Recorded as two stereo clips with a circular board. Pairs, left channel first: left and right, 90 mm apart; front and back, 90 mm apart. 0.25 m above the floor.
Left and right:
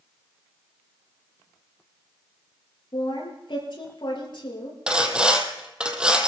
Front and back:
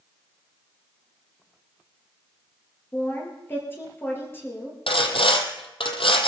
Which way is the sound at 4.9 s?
10° right.